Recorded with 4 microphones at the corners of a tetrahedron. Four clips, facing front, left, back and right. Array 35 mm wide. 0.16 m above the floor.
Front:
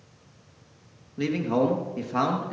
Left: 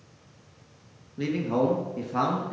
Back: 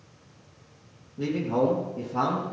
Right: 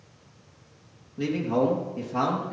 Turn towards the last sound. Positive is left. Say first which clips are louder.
# right 1 dB, front 1 dB
turn(degrees=15)